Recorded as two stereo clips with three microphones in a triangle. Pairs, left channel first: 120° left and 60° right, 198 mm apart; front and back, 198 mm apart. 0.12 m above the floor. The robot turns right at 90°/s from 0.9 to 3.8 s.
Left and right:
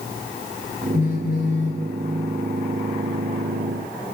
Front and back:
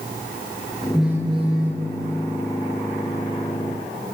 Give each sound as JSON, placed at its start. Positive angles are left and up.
{"t": 0.9, "sound": "a phone buzzing", "azimuth_deg": 85, "distance_m": 1.3}